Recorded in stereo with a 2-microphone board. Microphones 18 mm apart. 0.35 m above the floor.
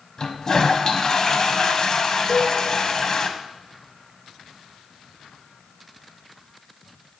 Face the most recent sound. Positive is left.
turn(degrees=40)  # may be behind; listen again after turning